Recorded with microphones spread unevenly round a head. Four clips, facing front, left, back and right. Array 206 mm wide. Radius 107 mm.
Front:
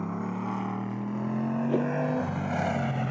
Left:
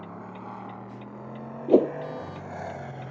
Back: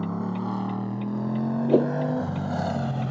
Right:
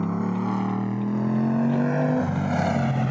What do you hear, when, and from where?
0.0 s a motorcycle: 105° right; by 3.1 s 100° right
1.7 s a whoosh: 115° left